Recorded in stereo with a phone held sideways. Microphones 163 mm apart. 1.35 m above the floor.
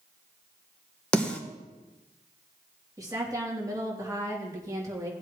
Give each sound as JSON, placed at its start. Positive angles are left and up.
{"t": 1.1, "sound": "a snare drum", "side_deg": 5, "distance_m": 1.5}
{"t": 3.0, "sound": "a woman speaking", "side_deg": -25, "distance_m": 3.0}